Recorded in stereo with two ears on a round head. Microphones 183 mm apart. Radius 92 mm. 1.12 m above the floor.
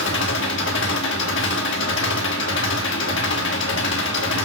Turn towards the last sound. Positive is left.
turn(degrees=60)  # may be behind; listen again after turning